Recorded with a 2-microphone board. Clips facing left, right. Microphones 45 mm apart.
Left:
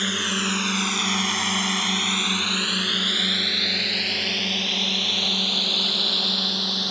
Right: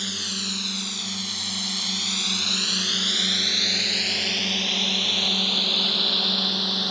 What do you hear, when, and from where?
0.0 s a drone: 40° left (ahead or behind); by 6.9 s 5° right (ahead or behind)